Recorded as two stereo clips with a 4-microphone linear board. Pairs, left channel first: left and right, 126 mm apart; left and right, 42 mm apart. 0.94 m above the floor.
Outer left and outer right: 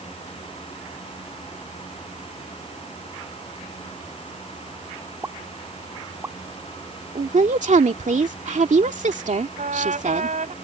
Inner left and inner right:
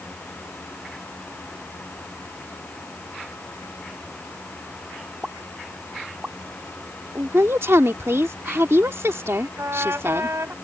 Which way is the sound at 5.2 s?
25° right (ahead or behind).